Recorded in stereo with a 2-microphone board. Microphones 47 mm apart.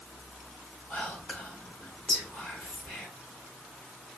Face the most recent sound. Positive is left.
turn(degrees=20)  # may be behind; listen again after turning